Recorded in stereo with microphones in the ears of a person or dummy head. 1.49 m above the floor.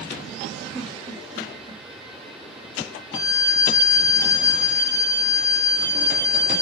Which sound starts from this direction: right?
A giggle, at 0.7 s.